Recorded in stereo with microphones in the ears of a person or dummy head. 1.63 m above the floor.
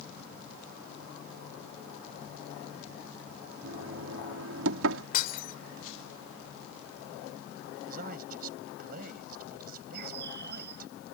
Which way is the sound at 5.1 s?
50° left (ahead or behind).